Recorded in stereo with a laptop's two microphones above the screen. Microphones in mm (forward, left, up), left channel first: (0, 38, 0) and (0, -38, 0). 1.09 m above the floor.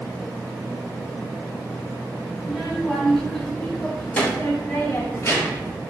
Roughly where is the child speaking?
Centre.